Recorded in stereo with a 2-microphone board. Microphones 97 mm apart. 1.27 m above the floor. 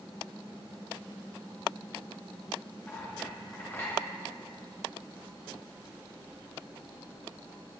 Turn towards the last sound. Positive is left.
turn(degrees=25)  # may be behind; listen again after turning